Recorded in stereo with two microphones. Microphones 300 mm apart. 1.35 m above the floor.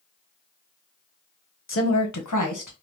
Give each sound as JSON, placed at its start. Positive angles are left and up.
{"t": 1.7, "sound": "a woman speaking", "side_deg": 40, "distance_m": 0.7}